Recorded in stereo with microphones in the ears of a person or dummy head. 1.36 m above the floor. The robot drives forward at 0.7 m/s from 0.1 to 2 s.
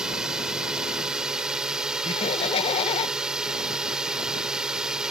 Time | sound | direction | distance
0.0 | a drone | 5° right (ahead or behind) | ?
2.0 | laughter | 30° left (ahead or behind) | ?